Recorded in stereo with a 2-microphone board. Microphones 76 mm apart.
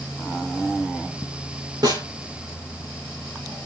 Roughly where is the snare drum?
Right.